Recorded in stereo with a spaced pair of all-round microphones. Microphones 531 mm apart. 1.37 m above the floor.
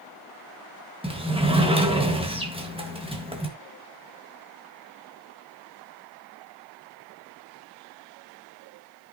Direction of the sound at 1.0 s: 10° right (ahead or behind).